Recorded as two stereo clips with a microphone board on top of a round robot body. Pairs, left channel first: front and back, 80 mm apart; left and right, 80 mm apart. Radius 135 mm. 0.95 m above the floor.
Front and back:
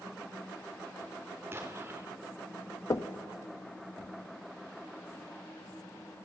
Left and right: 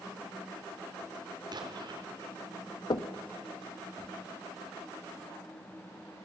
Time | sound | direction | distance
1.5 | an explosion | 120° right | 3 m
2.9 | knocking | 55° left | 0.9 m